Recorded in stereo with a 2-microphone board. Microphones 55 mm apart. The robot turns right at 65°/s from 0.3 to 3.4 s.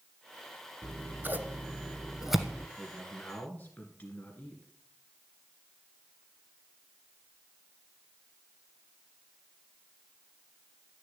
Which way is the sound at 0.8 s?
35° right (ahead or behind).